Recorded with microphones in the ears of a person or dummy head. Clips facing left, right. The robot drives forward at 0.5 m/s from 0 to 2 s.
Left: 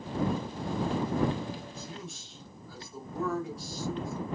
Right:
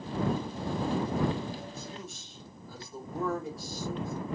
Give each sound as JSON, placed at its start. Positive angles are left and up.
{"t": 1.8, "sound": "a man speaking", "side_deg": -5, "distance_m": 1.2}